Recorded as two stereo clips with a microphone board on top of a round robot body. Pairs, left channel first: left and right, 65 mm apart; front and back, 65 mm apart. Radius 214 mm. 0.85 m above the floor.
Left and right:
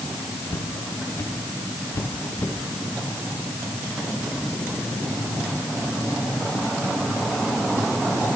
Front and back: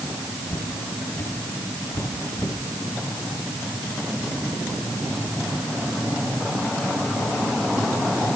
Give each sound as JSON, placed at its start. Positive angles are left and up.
{"t": 0.5, "sound": "footsteps", "azimuth_deg": 55, "distance_m": 5.5}